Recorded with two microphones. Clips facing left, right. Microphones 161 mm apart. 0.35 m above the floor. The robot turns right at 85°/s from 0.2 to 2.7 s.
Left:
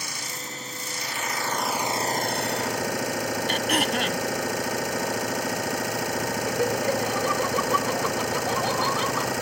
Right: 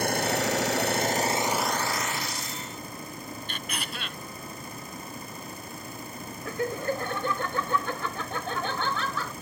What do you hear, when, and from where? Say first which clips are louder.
0.0 s an engine running: right 12 dB; 125° right; by 9.4 s 90° left
3.5 s throat clearing: left 15 dB; 70° left (ahead or behind)
6.5 s laughter: left 3 dB; 20° left (ahead or behind)